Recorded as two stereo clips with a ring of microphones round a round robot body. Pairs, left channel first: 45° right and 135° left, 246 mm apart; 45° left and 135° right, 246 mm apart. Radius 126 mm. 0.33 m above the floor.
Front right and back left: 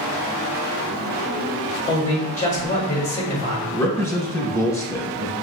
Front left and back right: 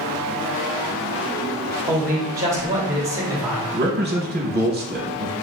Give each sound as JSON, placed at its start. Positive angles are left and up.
{"t": 1.9, "sound": "a man speaking", "azimuth_deg": -70, "distance_m": 1.7}
{"t": 3.7, "sound": "a man speaking", "azimuth_deg": -120, "distance_m": 1.1}